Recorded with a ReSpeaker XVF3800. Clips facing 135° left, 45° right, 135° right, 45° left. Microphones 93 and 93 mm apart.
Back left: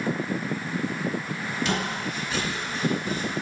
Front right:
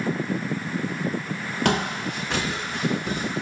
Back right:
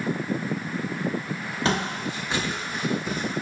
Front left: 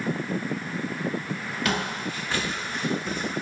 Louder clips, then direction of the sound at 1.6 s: Front right 6 dB, back right 3 dB; 75° right.